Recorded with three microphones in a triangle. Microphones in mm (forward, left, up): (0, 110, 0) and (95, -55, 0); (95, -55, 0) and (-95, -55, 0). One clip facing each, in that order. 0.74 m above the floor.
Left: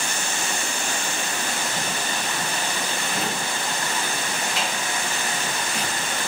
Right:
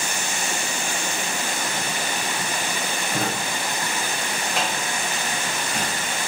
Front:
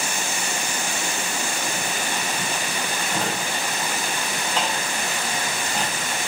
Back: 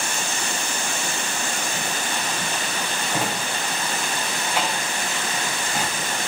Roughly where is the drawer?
Right.